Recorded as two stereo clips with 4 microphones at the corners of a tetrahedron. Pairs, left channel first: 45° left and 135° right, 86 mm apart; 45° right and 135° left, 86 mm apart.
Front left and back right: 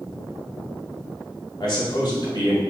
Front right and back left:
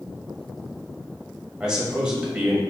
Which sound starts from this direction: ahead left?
A man speaking, at 1.6 s.